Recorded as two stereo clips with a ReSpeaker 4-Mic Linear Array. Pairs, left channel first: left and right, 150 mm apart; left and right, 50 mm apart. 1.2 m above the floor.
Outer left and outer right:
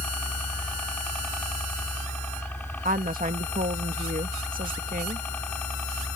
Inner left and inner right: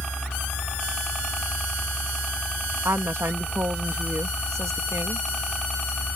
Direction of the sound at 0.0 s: 10° left (ahead or behind).